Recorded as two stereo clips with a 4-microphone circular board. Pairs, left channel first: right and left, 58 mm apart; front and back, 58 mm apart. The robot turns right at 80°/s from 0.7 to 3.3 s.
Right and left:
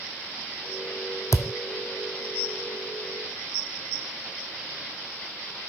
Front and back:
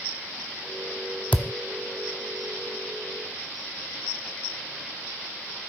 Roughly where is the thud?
Right.